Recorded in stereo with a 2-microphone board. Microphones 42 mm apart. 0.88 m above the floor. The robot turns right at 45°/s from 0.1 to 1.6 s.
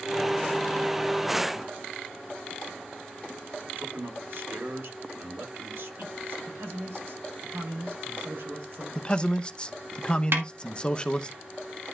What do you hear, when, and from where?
3.6 s a man speaking: 65° right (ahead or behind), 2.5 m
6.5 s a man speaking: 75° right (ahead or behind), 3.5 m
8.9 s a man speaking: 20° left (ahead or behind), 0.6 m
10.3 s a snare drum: 60° right (ahead or behind), 1.8 m